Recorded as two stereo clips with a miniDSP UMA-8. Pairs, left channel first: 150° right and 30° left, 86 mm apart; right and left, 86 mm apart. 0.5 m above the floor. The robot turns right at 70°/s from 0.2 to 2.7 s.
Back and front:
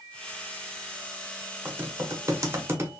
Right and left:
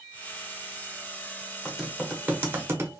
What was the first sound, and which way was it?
Typing on a keyboard, 10° right.